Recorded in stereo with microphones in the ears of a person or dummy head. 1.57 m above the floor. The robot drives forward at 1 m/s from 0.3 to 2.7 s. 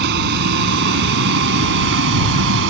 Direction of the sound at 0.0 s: 55° right (ahead or behind).